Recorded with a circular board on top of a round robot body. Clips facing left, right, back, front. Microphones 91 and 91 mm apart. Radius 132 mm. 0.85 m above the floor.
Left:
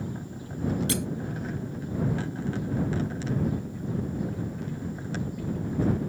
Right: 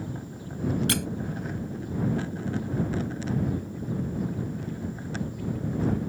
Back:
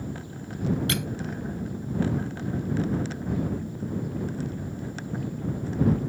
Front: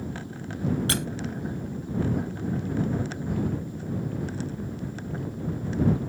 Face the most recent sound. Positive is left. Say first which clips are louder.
# even, even
turn(degrees=-55)